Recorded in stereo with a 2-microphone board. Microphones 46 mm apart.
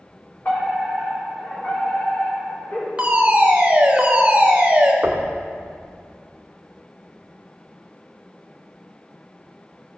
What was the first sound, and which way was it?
A fire alarm, 40° left (ahead or behind).